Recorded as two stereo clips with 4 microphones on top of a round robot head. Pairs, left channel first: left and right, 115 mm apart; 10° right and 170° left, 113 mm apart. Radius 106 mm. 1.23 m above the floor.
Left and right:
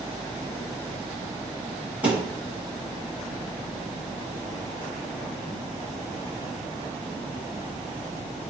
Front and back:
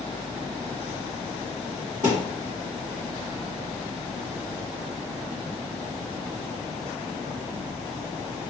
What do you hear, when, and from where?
2.0 s a thud: 160° right, 1.3 m